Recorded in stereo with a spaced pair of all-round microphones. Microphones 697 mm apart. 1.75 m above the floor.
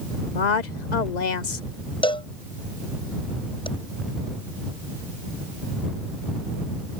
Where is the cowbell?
5° left (ahead or behind).